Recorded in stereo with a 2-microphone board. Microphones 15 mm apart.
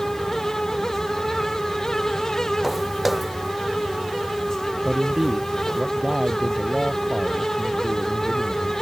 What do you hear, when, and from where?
2.6 s footsteps: 20° right (ahead or behind)
4.8 s a man speaking: 45° right (ahead or behind)